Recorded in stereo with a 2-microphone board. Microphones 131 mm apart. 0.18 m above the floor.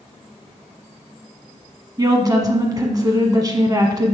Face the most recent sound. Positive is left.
turn(degrees=-30)  # may be behind; listen again after turning